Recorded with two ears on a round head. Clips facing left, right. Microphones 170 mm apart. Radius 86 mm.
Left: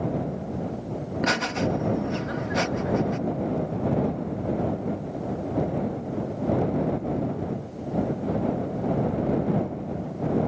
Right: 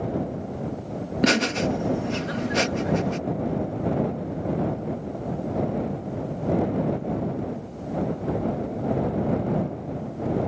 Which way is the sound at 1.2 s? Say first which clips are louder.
Right 4 dB; 40° right (ahead or behind).